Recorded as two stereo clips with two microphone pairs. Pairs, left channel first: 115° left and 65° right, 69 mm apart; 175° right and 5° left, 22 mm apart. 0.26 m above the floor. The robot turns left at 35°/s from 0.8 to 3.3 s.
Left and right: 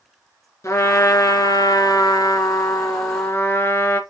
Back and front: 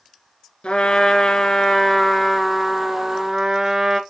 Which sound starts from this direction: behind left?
A trumpet, at 0.6 s.